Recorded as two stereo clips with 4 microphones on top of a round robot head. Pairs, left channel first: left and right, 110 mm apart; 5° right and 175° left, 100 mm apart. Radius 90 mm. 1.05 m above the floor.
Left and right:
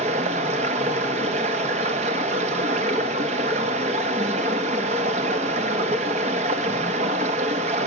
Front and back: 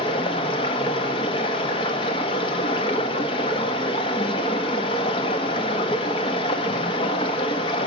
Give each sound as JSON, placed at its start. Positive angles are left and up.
{"t": 0.0, "sound": "running water", "azimuth_deg": -55, "distance_m": 0.9}